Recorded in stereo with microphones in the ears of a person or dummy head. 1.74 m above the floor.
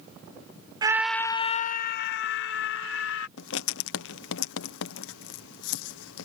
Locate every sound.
0.8 s a scream: 25° right (ahead or behind); by 3.3 s 70° left (ahead or behind)
3.4 s writing: 75° left (ahead or behind)